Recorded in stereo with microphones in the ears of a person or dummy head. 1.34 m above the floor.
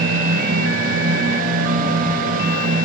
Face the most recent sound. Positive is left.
turn(degrees=-55)  # may be behind; listen again after turning